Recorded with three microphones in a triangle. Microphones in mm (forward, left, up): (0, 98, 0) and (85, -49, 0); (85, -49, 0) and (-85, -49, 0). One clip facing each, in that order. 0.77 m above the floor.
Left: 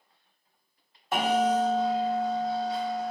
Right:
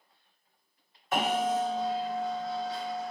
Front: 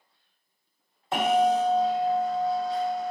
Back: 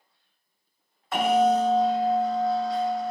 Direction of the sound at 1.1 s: 60° left.